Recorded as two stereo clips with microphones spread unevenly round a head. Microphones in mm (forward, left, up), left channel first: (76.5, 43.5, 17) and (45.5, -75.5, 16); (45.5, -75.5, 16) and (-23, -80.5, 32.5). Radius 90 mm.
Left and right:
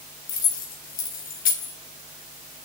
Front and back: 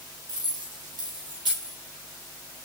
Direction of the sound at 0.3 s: 120° left.